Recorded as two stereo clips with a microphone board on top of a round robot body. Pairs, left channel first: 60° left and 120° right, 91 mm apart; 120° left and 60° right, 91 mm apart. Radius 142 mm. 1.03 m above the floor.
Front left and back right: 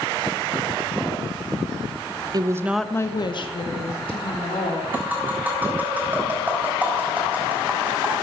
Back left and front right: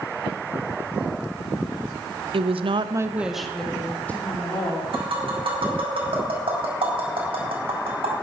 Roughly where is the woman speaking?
Right.